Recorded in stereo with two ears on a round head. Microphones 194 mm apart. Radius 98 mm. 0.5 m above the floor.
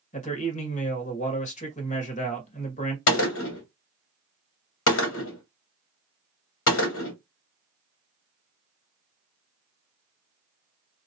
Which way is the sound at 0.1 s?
35° left (ahead or behind).